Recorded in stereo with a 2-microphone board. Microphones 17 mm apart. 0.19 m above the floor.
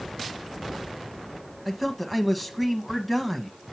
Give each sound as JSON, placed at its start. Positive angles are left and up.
{"t": 1.6, "sound": "a man speaking", "side_deg": 0, "distance_m": 1.0}